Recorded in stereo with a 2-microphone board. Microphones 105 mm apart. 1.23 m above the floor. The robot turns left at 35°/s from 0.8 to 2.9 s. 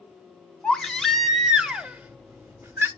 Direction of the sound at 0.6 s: 5° left (ahead or behind).